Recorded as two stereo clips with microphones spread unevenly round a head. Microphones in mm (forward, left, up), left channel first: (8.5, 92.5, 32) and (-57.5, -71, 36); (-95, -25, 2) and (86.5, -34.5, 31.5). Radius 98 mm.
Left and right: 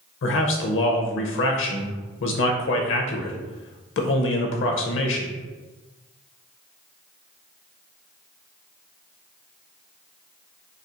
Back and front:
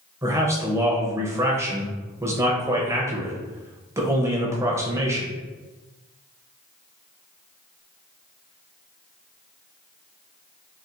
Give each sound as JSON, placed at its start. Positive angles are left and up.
{"t": 0.2, "sound": "a man speaking", "azimuth_deg": 75, "distance_m": 0.7}